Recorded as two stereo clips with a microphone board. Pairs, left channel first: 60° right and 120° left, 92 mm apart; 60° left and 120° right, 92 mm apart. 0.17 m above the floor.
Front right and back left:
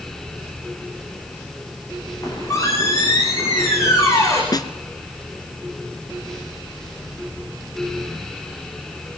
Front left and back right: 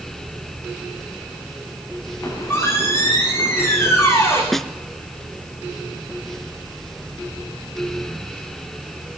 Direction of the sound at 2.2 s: 5° right.